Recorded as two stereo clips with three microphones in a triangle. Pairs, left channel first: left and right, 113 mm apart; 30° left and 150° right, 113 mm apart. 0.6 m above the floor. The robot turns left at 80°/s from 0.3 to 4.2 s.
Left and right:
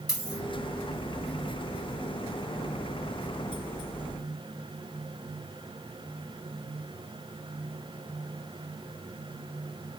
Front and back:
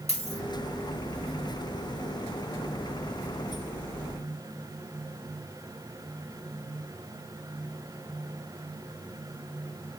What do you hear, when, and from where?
0.1 s a dropped coin: 35° left, 1.5 m; by 0.4 s 25° left, 1.5 m